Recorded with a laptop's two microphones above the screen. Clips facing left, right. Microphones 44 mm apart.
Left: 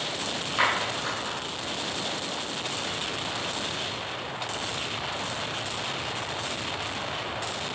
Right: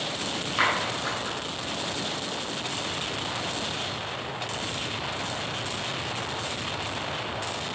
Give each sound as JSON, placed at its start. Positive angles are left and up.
{"t": 0.6, "sound": "a clap", "side_deg": 0, "distance_m": 4.0}